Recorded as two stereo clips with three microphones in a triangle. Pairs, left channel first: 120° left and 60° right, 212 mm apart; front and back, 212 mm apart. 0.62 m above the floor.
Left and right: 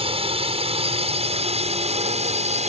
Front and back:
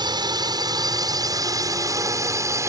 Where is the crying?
No crying in this recording.